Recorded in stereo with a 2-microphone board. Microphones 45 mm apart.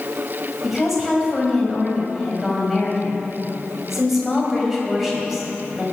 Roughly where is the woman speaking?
Centre.